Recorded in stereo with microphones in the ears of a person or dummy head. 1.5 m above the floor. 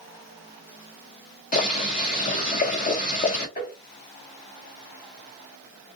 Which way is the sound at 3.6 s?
25° left (ahead or behind).